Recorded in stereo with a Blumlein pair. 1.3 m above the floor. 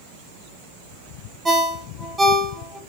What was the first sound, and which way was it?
A ringtone, 10° right.